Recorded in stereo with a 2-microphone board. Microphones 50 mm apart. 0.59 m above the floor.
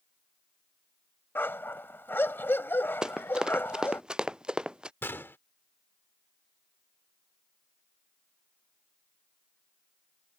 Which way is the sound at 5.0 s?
50° left (ahead or behind).